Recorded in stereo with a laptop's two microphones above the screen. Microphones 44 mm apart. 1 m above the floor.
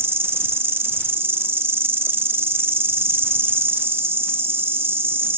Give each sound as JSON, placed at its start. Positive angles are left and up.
{"t": 0.0, "sound": "an insect", "side_deg": -55, "distance_m": 0.7}